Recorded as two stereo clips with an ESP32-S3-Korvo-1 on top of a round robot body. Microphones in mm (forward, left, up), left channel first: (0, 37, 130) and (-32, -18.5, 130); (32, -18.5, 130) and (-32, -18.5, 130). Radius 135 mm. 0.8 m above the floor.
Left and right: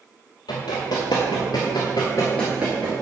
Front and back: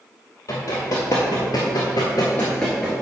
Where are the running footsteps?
45° left, 1.3 m; by 2.9 s 105° right, 0.8 m.